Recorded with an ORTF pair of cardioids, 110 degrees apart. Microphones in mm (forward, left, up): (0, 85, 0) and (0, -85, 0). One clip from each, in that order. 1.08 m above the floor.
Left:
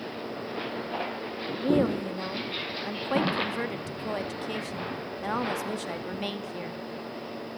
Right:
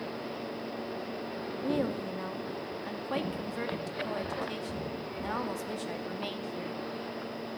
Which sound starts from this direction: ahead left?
A woman speaking, at 1.6 s.